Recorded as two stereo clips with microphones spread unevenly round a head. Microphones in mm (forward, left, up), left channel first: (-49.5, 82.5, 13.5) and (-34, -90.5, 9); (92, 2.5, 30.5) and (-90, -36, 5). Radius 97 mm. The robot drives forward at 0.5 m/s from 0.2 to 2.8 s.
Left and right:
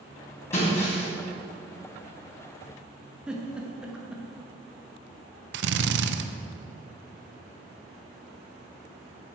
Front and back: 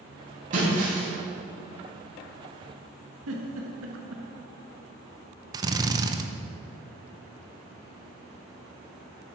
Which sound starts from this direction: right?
A drill, at 5.5 s.